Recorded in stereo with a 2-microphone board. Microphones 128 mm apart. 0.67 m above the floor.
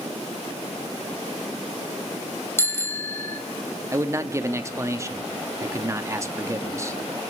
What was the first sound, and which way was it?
A bicycle bell, 20° left (ahead or behind).